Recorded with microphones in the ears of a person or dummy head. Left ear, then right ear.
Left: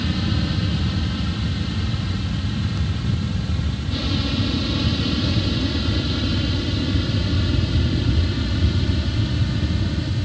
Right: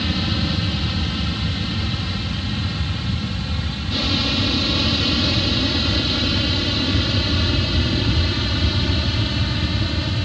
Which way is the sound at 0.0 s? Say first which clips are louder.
Right 3 dB; 25° right (ahead or behind).